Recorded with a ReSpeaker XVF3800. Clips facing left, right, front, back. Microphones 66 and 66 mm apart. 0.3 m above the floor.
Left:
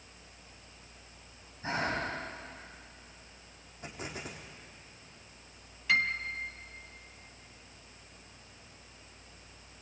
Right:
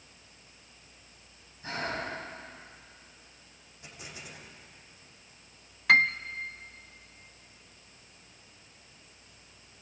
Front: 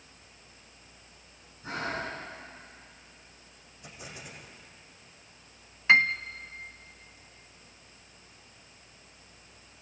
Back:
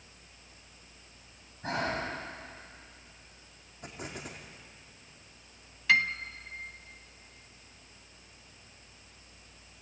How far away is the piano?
About 0.7 m.